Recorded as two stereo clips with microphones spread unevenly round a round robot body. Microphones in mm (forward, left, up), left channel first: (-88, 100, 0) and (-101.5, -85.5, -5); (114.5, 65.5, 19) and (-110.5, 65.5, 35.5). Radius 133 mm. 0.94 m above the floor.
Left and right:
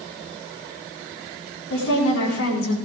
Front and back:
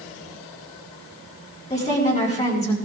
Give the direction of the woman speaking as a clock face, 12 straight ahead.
10 o'clock.